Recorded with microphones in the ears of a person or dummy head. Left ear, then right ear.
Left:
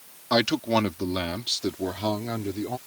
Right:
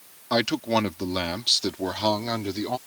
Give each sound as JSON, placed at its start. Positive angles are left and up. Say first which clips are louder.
{"t": 0.3, "sound": "a man speaking", "louder": "left 1 dB", "side_deg": -5}